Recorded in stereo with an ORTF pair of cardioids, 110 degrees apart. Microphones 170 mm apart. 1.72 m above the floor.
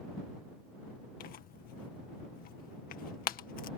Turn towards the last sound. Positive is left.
turn(degrees=55)